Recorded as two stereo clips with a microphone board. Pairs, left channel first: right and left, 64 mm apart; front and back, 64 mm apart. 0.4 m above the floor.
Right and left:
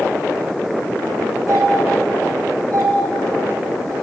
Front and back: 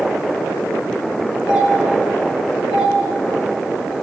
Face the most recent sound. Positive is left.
turn(degrees=-105)